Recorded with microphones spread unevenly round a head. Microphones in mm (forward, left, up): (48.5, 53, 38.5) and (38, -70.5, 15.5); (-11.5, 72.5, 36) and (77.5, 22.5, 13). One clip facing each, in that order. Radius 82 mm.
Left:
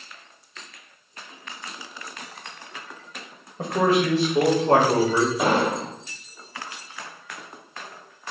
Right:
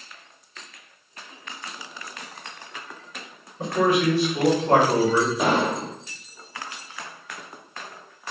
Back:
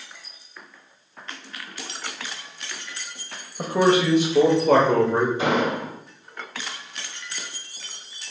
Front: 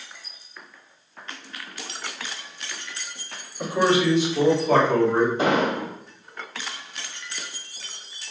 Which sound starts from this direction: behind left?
A man speaking, at 3.6 s.